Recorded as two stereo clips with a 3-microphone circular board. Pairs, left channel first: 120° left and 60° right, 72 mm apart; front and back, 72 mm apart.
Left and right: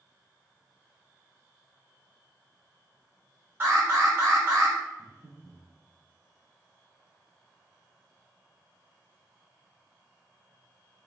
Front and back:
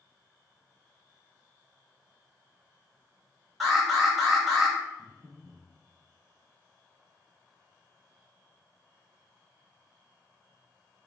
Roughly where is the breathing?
Behind right.